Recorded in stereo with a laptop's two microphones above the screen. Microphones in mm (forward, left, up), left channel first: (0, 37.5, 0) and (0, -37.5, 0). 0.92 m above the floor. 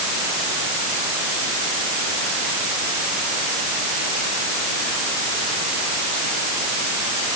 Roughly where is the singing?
No singing in this recording.